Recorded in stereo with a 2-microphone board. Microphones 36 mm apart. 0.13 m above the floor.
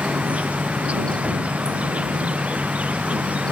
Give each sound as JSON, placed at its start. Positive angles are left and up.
{"t": 0.0, "sound": "an insect", "side_deg": -40}